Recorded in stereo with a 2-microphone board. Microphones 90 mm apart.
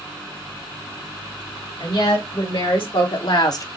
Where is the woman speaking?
75° left (ahead or behind), 3 m; by 3.7 s 35° left (ahead or behind), 0.7 m.